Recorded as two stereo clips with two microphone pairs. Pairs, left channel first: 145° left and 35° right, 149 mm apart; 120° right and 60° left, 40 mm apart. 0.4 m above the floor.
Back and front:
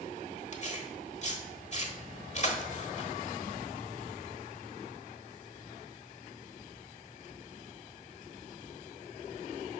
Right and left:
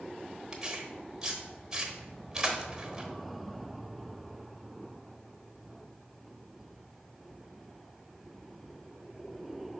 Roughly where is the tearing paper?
Behind left.